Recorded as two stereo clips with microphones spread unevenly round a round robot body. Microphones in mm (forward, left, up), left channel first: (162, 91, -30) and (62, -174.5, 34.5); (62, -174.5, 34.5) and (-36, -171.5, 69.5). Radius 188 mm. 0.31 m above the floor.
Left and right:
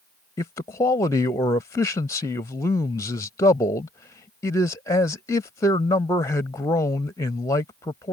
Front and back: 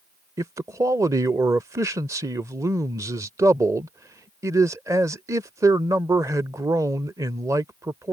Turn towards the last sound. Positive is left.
turn(degrees=110)